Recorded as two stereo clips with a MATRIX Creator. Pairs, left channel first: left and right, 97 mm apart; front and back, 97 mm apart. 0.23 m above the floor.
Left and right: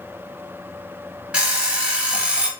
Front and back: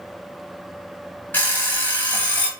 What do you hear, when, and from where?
1.3 s an alarm clock: 30° right, 0.7 m